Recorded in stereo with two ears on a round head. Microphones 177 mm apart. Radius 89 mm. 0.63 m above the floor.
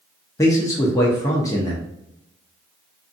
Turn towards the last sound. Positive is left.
turn(degrees=15)  # may be behind; listen again after turning